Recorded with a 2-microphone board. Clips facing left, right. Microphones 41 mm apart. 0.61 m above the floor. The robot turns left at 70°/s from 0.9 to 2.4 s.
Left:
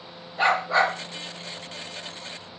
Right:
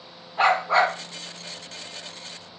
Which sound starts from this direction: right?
A dog barking, at 0.4 s.